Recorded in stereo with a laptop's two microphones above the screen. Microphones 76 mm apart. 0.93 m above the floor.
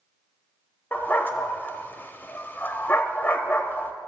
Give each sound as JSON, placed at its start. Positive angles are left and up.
{"t": 0.9, "sound": "a dog barking", "side_deg": 25, "distance_m": 0.7}